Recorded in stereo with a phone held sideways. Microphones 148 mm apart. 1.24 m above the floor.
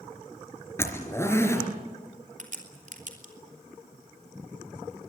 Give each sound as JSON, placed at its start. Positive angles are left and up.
{"t": 0.8, "sound": "a zipper", "side_deg": 15, "distance_m": 3.5}
{"t": 2.4, "sound": "a crack", "side_deg": -60, "distance_m": 3.5}